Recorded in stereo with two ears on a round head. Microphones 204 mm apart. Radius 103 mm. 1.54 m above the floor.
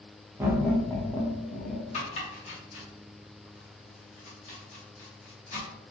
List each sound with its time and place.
0.4 s laughter: 15° right (ahead or behind), 0.6 m; by 1.8 s 45° left (ahead or behind), 0.9 m
1.9 s chopping: 30° left (ahead or behind), 0.9 m